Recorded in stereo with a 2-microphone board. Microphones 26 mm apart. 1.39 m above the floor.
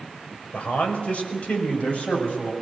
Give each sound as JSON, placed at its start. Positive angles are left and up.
{"t": 0.5, "sound": "a man speaking", "side_deg": 50, "distance_m": 5.0}